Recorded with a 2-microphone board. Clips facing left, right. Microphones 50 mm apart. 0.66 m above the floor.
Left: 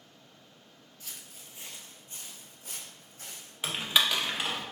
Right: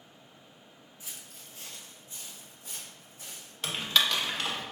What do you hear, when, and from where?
1.0 s footsteps: 20° right (ahead or behind), 0.7 m; by 3.5 s 65° left (ahead or behind), 2.0 m
3.6 s typing on a keyboard: 10° left (ahead or behind), 0.7 m